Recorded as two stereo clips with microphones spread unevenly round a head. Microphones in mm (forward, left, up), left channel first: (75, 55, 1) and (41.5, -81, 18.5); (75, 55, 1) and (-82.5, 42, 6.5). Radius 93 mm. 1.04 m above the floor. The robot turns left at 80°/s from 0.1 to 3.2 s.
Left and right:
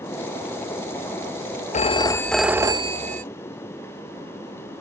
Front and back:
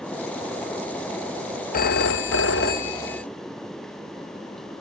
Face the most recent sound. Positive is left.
turn(degrees=-80)